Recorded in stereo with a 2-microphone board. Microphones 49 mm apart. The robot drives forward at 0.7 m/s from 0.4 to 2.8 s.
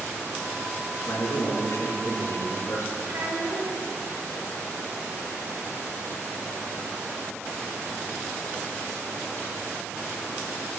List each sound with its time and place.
1.1 s a man speaking: 75° left (ahead or behind), 4.5 m; by 3.0 s 65° left (ahead or behind), 4.5 m
3.1 s a child speaking: 75° right (ahead or behind), 4.5 m